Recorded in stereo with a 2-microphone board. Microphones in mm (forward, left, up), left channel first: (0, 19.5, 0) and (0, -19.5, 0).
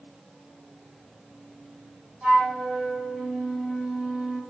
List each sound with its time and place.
2.2 s a flute: 15° right (ahead or behind), 1.4 m